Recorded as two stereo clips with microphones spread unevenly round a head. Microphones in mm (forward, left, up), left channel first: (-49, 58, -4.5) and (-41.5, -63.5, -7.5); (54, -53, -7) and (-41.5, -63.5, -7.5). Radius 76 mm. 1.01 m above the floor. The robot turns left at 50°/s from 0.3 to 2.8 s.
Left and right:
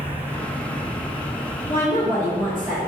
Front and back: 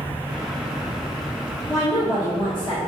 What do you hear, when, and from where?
1.7 s a woman speaking: 35° left, 0.8 m; by 2.8 s 20° right, 0.8 m